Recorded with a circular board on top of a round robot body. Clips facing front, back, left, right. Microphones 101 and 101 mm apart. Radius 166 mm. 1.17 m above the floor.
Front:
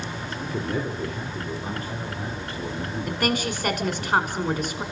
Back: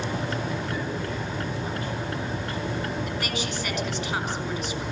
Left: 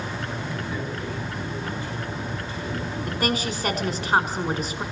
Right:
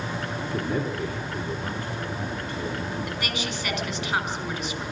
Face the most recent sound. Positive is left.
turn(degrees=40)